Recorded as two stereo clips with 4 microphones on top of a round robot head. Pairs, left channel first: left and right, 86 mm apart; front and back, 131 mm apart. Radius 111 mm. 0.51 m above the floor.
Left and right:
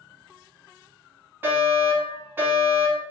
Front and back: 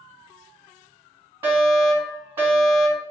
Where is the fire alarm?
125° right, 2.0 m.